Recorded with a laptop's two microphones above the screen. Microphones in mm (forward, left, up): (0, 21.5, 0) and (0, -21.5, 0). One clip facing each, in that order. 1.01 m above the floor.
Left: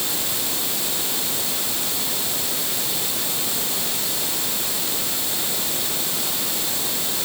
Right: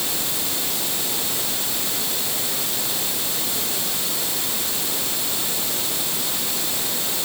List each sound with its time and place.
Only background noise.